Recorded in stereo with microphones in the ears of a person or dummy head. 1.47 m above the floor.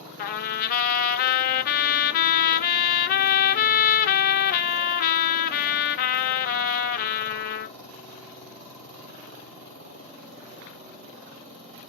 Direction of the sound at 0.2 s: 50° left (ahead or behind).